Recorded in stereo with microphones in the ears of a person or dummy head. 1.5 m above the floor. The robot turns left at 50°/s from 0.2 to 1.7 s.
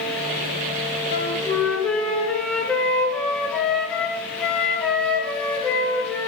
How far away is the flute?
About 0.6 m.